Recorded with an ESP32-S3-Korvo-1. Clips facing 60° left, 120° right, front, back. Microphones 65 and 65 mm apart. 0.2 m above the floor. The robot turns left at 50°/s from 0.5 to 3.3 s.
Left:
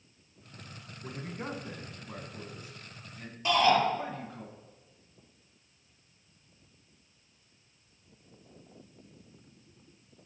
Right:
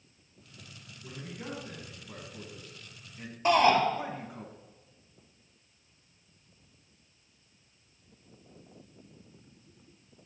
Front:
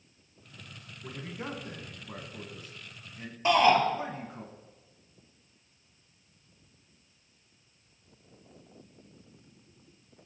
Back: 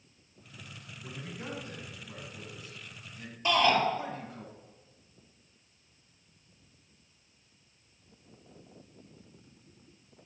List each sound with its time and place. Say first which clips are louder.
1.0 s a man speaking: left 3 dB, front 3 dB; 65° left, 1.8 m; by 4.5 s 50° right, 1.8 m
3.5 s a shout: right 2 dB, front 3 dB; 60° right, 4 m